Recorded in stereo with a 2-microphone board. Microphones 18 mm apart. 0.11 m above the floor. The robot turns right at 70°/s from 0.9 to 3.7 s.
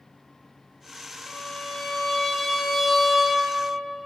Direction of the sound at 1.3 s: 65° left.